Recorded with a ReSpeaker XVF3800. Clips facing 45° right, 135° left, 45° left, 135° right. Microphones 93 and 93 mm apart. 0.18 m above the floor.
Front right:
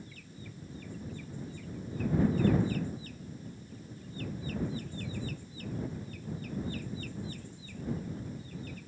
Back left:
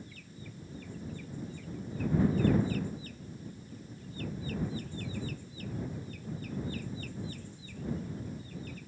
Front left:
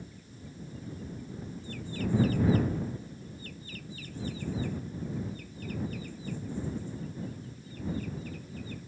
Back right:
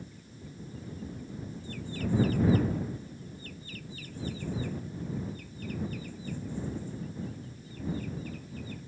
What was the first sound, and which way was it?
Only background noise.